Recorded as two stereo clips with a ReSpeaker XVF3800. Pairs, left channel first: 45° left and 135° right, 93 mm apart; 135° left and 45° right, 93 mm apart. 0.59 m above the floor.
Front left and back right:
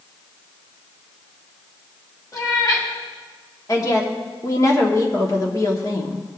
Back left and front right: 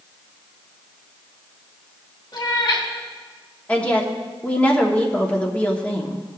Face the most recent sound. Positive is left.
turn(degrees=65)